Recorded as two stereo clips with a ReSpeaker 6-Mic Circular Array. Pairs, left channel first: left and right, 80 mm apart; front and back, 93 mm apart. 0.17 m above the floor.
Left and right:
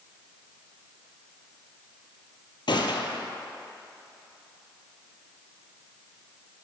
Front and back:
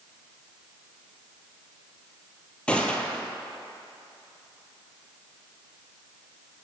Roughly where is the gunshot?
Left.